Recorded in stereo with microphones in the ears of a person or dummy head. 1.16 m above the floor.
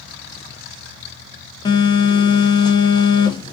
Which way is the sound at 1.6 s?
15° left (ahead or behind).